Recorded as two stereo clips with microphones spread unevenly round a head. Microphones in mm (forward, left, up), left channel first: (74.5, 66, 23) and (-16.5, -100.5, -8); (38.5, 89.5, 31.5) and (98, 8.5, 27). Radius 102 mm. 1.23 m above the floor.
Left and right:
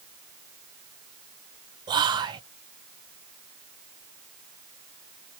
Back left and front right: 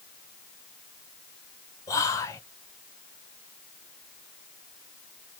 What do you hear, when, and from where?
1.9 s whispering: 175° right, 0.8 m